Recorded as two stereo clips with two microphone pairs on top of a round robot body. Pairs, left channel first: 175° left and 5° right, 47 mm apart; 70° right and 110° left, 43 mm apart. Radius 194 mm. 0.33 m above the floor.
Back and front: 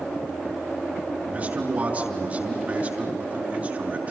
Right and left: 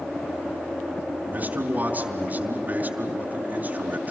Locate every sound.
1.3 s a man speaking: 55° left, 5 m